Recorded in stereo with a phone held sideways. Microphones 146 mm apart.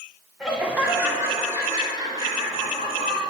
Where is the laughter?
5° right (ahead or behind), 2 m; by 3.2 s 35° right (ahead or behind), 4.5 m.